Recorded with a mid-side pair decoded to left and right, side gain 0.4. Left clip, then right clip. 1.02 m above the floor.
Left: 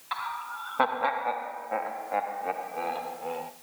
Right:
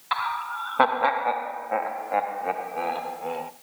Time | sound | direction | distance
0.1 | laughter | 55° right | 0.7 m